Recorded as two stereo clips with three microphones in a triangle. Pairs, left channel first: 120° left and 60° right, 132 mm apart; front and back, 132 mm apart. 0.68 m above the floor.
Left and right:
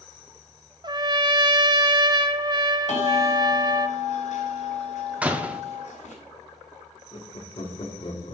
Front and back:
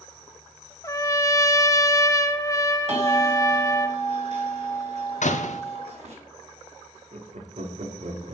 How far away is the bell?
About 3 m.